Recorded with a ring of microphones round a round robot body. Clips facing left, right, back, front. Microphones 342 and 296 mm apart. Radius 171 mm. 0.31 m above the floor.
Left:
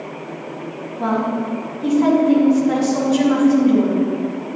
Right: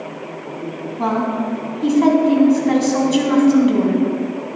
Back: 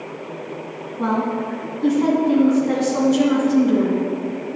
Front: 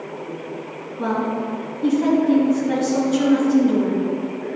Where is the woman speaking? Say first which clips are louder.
Even, back 1 dB; 105° right, 2 m.